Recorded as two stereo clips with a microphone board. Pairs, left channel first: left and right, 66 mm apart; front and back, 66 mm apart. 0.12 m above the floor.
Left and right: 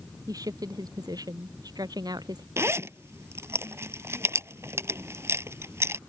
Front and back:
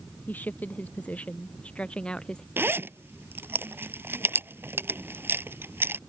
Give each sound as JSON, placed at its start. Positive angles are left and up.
{"t": 0.3, "sound": "a woman speaking", "azimuth_deg": -65}
{"t": 2.6, "sound": "a zipper", "azimuth_deg": -130}